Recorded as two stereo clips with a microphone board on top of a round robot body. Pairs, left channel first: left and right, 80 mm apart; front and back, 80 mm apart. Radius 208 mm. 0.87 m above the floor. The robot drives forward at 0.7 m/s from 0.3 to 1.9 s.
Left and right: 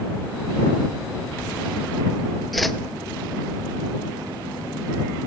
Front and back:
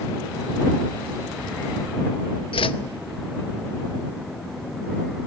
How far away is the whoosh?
About 0.8 m.